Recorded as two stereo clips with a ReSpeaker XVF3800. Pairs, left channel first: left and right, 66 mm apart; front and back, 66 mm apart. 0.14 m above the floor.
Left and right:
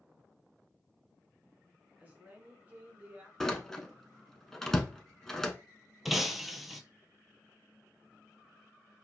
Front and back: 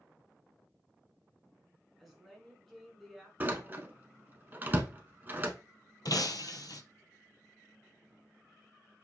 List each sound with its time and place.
2.0 s a woman speaking: 95° right, 1.6 m
3.4 s a door slam: 165° left, 0.8 m
6.0 s breaking glass: straight ahead, 0.6 m